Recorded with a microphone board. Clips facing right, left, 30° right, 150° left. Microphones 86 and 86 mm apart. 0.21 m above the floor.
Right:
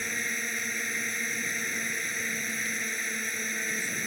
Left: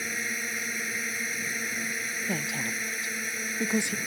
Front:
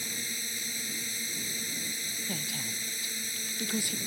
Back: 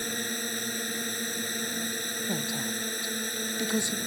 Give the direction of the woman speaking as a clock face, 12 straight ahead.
9 o'clock.